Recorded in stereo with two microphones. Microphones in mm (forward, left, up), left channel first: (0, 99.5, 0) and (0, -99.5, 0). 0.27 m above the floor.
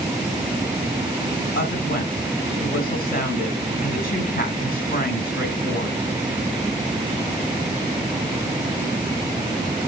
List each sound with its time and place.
1.6 s a woman speaking: 50° left (ahead or behind), 2 m